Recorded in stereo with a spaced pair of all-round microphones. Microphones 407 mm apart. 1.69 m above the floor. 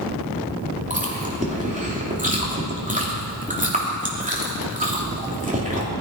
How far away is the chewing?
About 3 m.